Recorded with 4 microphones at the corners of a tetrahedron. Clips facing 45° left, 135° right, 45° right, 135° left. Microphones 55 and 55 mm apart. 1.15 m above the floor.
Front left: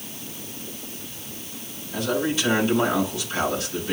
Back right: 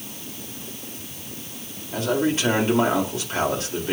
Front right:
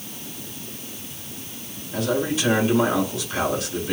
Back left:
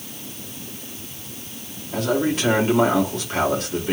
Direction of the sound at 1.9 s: 170° left.